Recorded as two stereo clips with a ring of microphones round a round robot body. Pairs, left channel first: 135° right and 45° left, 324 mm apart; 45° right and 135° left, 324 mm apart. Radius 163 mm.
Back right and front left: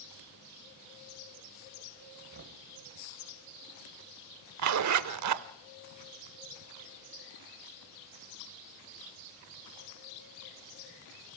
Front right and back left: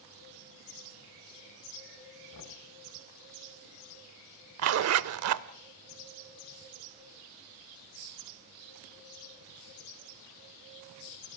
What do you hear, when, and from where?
2.3 s knocking: 10° right, 2 m
4.6 s a zipper: 85° left, 0.6 m